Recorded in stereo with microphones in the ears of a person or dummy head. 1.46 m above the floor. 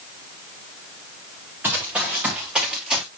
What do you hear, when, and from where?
1.6 s running footsteps: 10° right (ahead or behind), 5 m; by 3.0 s 5° right (ahead or behind), 6 m